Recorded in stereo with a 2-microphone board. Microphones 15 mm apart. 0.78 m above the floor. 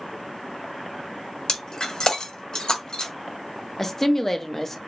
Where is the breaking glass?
60° left (ahead or behind), 1.1 m.